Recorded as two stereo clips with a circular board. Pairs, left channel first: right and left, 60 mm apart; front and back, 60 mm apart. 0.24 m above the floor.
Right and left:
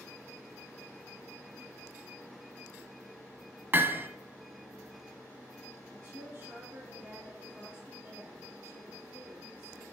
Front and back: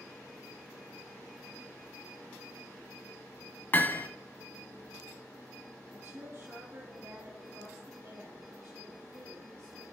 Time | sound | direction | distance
3.7 | hammering | 45° left | 0.7 m
5.9 | a woman speaking | 135° left | 3 m